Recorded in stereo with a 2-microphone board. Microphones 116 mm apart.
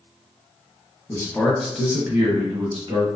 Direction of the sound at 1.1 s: 25° left (ahead or behind).